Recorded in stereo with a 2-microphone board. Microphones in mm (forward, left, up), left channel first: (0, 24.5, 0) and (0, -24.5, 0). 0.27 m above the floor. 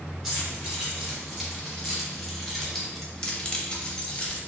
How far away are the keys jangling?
About 2.0 m.